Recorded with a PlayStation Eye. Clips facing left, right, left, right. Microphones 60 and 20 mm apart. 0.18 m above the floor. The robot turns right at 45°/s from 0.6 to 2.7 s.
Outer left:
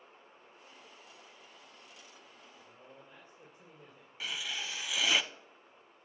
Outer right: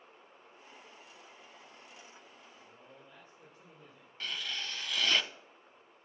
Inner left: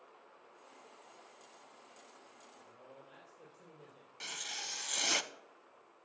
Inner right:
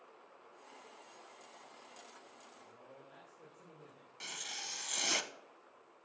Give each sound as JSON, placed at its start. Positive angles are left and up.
{"t": 2.6, "sound": "a man speaking", "side_deg": 15, "distance_m": 3.5}
{"t": 4.2, "sound": "writing", "side_deg": 10, "distance_m": 0.6}